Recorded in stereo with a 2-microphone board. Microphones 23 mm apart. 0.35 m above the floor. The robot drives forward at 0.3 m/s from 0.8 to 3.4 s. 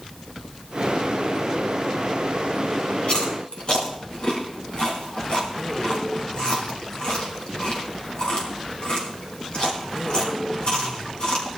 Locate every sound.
3.0 s chewing: 50° left (ahead or behind), 3.5 m